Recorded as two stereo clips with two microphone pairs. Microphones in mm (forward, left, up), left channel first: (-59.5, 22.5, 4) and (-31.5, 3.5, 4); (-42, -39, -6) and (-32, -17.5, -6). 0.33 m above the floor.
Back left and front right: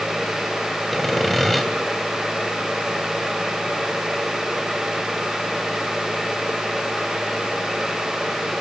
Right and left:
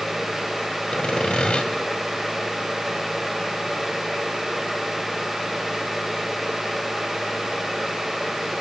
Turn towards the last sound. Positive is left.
turn(degrees=-130)